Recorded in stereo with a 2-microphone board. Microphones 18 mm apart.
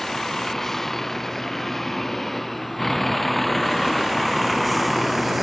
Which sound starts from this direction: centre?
A vehicle, at 0.0 s.